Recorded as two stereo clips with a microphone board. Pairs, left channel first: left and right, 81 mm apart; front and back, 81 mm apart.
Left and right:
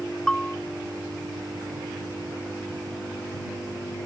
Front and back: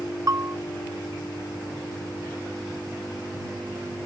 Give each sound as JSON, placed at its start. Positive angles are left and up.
{"t": 0.3, "sound": "a bell", "azimuth_deg": 165}